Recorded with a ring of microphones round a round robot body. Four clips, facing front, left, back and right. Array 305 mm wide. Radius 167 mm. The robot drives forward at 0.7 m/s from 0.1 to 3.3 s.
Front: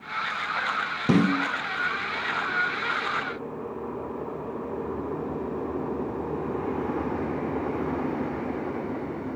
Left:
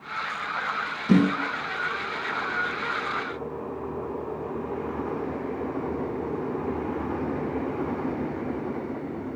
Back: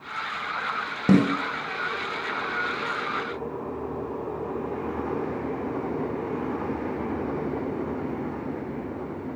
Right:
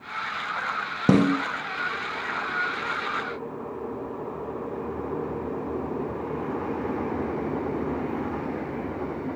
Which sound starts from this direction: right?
A snare drum, at 1.1 s.